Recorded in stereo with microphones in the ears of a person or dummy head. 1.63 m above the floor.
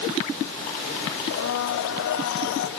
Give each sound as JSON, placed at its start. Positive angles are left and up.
{"t": 1.3, "sound": "a blender", "side_deg": 60, "distance_m": 1.5}